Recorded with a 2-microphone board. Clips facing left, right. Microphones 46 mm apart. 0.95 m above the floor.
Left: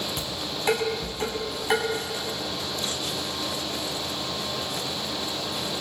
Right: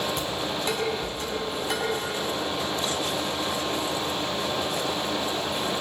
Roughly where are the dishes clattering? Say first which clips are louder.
Right 3 dB; left.